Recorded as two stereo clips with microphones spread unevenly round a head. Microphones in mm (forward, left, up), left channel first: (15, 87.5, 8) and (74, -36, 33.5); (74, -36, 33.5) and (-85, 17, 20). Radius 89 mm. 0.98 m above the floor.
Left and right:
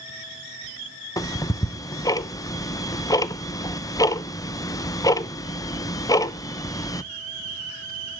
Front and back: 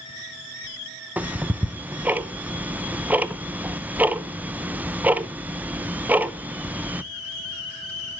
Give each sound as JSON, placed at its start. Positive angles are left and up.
{"t": 1.2, "sound": "ticking", "azimuth_deg": 95, "distance_m": 0.6}